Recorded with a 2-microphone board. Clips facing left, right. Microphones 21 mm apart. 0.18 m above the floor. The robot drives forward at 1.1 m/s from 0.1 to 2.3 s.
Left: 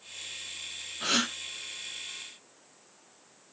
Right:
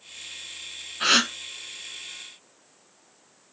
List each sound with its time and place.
1.0 s a gasp: 45° right (ahead or behind), 1.9 m; by 1.3 s 50° right (ahead or behind), 1.8 m